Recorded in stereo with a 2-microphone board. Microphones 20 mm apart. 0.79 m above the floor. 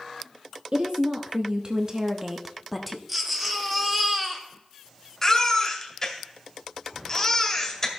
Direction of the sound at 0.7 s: 70° right (ahead or behind).